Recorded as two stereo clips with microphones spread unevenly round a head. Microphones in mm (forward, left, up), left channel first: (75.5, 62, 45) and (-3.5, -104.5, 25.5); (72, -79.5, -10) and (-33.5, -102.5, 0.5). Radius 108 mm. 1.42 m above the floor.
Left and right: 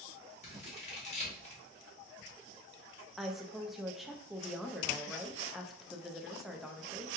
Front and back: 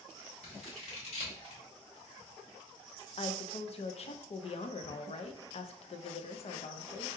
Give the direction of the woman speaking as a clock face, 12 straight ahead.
1 o'clock.